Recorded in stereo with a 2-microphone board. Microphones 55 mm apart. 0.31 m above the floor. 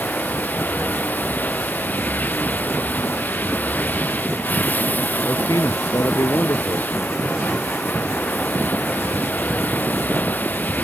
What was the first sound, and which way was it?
Running water, 30° left (ahead or behind).